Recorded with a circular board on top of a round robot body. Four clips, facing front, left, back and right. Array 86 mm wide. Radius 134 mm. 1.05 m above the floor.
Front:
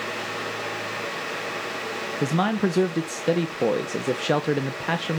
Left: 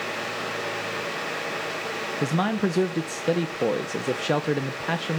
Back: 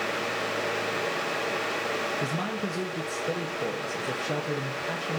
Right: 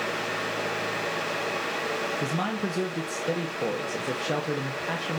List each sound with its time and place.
2.2 s a man speaking: 25° left, 1.3 m